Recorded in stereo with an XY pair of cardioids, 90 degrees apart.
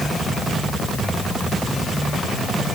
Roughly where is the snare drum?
I don't hear a snare drum.